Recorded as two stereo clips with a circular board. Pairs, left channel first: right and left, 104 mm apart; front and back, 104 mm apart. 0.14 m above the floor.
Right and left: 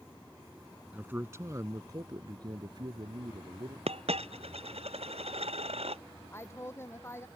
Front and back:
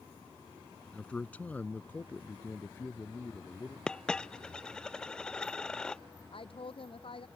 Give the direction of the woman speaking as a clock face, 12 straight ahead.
1 o'clock.